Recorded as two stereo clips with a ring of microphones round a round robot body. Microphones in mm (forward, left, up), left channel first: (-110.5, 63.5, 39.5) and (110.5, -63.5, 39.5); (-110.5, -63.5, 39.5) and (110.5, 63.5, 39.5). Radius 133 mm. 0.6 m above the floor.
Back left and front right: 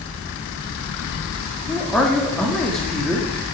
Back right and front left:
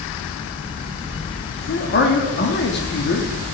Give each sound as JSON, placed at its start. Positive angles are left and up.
{"t": 1.7, "sound": "a man speaking", "azimuth_deg": -125, "distance_m": 0.9}